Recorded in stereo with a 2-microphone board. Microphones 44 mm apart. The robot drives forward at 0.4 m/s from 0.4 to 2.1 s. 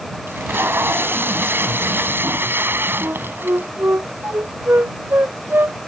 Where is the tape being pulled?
60° right (ahead or behind); by 3.7 s 55° right (ahead or behind).